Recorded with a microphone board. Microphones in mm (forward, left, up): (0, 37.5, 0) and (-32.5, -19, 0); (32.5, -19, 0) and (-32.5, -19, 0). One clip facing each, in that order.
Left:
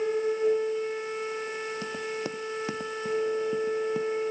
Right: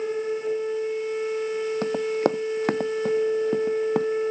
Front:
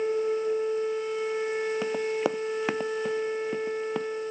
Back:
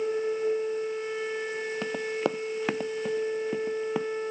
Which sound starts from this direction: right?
Running footsteps, at 1.8 s.